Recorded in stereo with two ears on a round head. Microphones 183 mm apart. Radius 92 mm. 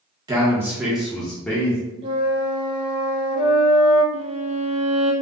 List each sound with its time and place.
0.3 s a man speaking: 20° right (ahead or behind), 1.0 m; by 1.8 s 15° left (ahead or behind), 1.3 m
2.0 s a flute: 30° right (ahead or behind), 1.3 m
4.1 s a violin: 35° right (ahead or behind), 1.5 m